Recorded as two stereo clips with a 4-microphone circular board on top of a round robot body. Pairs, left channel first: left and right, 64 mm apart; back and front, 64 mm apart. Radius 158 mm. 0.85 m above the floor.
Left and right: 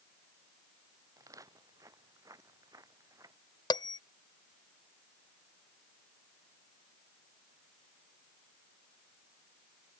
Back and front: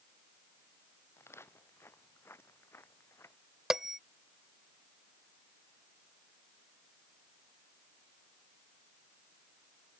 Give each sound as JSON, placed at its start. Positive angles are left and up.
{"t": 1.2, "sound": "footsteps", "azimuth_deg": -130}
{"t": 3.7, "sound": "a bell", "azimuth_deg": 85}